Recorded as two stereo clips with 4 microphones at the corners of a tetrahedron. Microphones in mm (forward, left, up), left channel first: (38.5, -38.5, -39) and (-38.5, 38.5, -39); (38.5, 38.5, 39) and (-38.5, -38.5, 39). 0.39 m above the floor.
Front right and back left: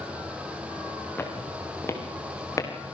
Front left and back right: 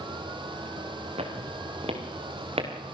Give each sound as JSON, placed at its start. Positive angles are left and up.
{"t": 1.2, "sound": "footsteps", "azimuth_deg": -115, "distance_m": 4.5}